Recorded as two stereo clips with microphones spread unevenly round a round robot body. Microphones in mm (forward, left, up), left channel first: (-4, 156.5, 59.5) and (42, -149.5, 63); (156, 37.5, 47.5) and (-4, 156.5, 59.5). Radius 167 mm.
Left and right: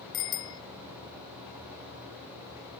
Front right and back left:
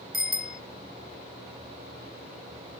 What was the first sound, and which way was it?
A bicycle bell, 100° left.